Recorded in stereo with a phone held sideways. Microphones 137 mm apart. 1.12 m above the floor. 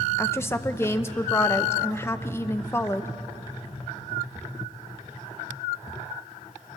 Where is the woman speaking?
20° left (ahead or behind), 0.8 m.